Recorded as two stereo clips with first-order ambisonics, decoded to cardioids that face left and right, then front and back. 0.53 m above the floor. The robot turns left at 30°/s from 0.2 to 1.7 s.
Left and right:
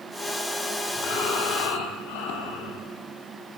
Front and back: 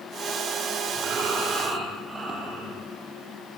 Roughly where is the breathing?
Behind left.